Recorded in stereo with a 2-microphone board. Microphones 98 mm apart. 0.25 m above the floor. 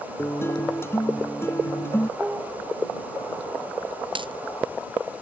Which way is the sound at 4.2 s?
55° right (ahead or behind).